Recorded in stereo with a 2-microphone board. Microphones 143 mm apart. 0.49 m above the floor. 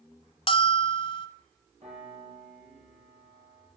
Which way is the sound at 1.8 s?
55° right (ahead or behind).